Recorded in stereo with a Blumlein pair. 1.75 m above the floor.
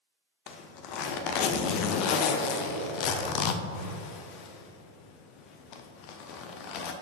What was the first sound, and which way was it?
A zipper, 40° left.